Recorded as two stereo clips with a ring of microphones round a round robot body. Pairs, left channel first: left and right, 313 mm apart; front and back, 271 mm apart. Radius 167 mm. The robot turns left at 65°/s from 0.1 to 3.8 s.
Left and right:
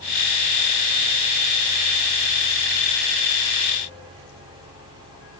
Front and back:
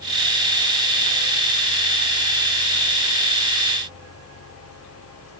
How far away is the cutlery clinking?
No cutlery clinking in this recording.